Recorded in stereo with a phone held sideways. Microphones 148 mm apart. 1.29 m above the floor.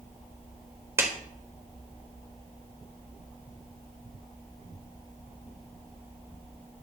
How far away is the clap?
About 3.5 m.